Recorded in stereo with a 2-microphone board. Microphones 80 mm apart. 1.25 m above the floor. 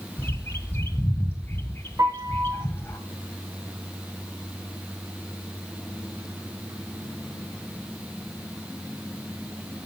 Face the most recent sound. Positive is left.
turn(degrees=-45)  # may be behind; listen again after turning